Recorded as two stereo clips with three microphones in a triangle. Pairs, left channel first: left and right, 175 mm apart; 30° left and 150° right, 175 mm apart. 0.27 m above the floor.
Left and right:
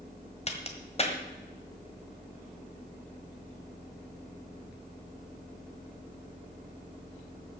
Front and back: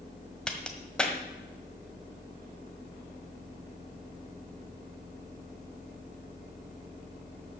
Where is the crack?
110° left, 1.5 m.